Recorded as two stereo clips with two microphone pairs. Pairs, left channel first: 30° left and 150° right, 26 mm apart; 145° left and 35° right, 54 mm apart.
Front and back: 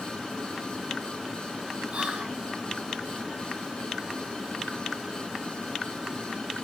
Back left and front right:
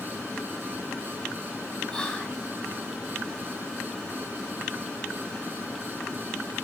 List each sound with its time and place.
1.9 s whispering: 145° right, 1.2 m